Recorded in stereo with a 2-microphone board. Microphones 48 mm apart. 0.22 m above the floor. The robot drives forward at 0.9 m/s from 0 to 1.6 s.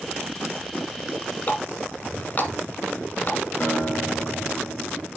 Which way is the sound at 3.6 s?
40° left (ahead or behind).